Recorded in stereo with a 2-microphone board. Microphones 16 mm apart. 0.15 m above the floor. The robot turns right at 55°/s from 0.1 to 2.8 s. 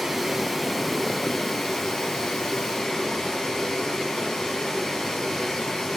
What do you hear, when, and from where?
0.0 s running water: 30° right, 2.5 m; by 6.0 s 120° left, 2.5 m